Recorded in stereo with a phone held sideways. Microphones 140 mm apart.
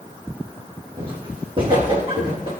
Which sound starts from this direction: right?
Footsteps, at 1.0 s.